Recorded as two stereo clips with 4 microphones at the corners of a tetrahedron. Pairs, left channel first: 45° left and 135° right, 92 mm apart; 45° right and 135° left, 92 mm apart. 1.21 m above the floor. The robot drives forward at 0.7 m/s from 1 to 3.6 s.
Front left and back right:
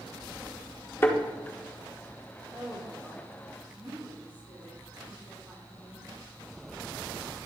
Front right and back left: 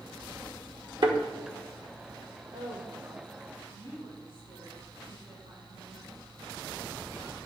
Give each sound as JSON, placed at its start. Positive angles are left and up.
{"t": 1.0, "sound": "a thud", "azimuth_deg": 105, "distance_m": 1.4}
{"t": 2.5, "sound": "a woman speaking", "azimuth_deg": 160, "distance_m": 3.5}